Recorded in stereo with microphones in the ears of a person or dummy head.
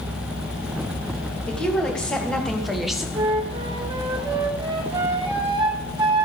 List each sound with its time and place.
1.5 s a woman speaking: 10° left (ahead or behind), 2 m; by 3.0 s centre (ahead or behind), 1.0 m
3.1 s a flute: 25° right (ahead or behind), 1.4 m